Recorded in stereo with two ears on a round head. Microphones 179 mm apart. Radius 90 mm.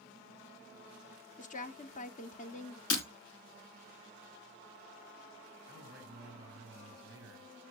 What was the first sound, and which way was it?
A woman speaking, 40° left (ahead or behind).